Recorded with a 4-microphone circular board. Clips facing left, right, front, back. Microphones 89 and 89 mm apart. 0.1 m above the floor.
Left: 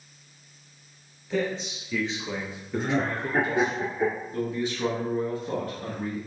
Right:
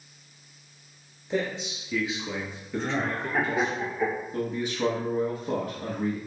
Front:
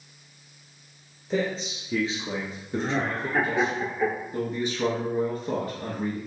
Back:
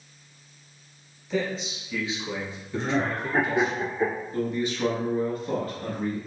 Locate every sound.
1.3 s a man speaking: 35° right, 1.7 m; by 3.8 s 40° left, 1.8 m
2.8 s laughter: 120° left, 1.9 m
4.3 s a man speaking: 40° right, 1.2 m